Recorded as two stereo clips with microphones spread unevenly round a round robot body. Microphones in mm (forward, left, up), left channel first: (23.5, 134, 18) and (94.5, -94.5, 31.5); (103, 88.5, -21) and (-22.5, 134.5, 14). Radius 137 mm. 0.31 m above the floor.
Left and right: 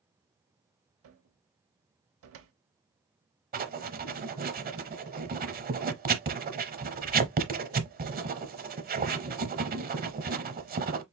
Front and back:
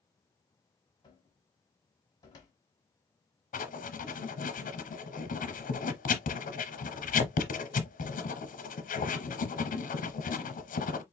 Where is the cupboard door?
70° right, 0.9 m.